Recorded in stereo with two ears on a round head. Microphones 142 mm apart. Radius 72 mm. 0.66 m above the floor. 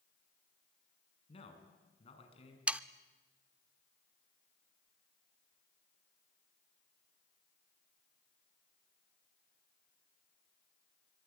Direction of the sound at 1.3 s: 40° left (ahead or behind).